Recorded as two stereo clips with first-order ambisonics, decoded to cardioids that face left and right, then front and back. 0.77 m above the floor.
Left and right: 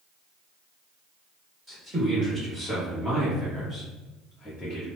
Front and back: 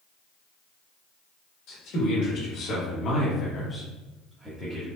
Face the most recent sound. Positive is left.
turn(degrees=140)